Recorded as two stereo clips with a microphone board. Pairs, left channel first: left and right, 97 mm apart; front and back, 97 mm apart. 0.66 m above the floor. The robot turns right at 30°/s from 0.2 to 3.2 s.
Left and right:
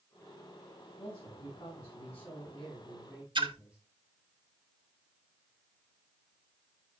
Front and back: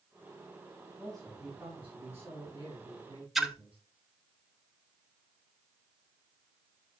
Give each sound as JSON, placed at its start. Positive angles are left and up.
{"t": 1.0, "sound": "a man speaking", "azimuth_deg": 80, "distance_m": 5.5}
{"t": 3.4, "sound": "a splash", "azimuth_deg": -90, "distance_m": 1.1}